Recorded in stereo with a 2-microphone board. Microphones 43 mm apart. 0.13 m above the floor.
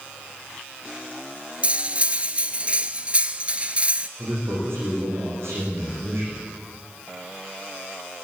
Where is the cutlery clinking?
30° right (ahead or behind), 1.1 m.